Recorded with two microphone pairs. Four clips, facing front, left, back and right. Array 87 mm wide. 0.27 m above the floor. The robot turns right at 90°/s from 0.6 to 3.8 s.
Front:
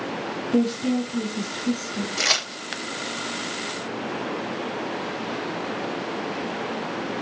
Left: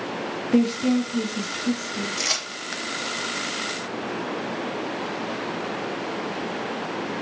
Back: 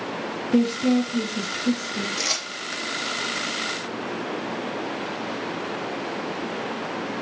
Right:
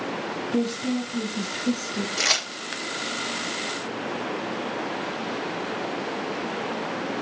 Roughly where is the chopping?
No chopping in this recording.